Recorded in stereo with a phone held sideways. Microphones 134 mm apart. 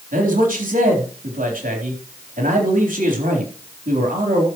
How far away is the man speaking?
About 4 m.